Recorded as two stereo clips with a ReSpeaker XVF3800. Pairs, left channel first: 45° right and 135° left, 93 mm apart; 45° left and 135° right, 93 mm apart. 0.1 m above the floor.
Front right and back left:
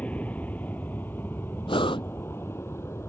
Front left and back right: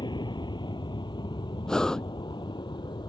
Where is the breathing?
40° right.